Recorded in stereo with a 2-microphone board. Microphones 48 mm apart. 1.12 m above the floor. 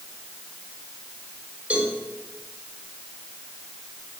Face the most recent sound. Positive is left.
turn(degrees=-30)  # may be behind; listen again after turning